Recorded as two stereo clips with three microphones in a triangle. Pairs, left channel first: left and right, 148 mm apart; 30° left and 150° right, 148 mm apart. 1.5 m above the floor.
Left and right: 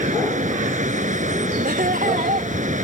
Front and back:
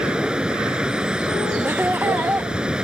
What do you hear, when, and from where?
0.0 s running water: 65° right
1.6 s laughter: 70° right